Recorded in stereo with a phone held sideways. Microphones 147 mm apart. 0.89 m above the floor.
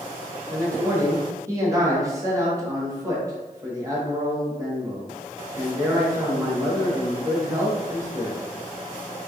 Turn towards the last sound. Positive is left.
turn(degrees=-20)  # may be behind; listen again after turning